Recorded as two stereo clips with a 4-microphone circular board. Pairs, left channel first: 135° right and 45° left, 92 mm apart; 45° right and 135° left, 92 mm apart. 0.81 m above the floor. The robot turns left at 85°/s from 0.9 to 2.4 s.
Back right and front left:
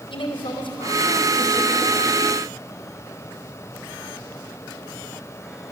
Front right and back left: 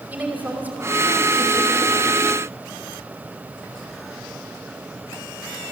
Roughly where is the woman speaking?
Behind right.